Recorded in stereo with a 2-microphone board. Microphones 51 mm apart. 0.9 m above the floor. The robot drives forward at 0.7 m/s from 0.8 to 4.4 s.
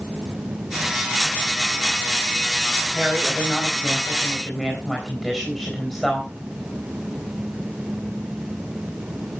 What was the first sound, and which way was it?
A woman speaking, centre (ahead or behind).